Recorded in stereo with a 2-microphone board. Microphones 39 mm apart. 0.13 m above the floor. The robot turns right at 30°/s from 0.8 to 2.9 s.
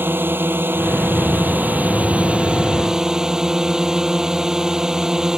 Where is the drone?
80° right; by 5.4 s 20° right.